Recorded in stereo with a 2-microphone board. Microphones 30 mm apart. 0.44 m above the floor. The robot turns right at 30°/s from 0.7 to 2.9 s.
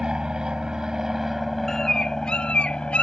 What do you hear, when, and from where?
0.0 s an aircraft: 30° right; by 3.0 s 35° left
1.7 s a bird: 15° left (ahead or behind); by 3.0 s 45° left (ahead or behind)